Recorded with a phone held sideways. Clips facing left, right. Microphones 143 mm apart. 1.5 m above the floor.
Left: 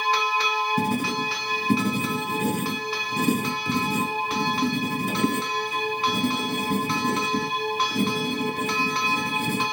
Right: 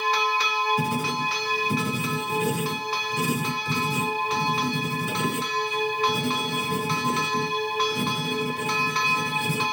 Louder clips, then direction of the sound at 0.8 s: Left 2 dB; 55° left (ahead or behind).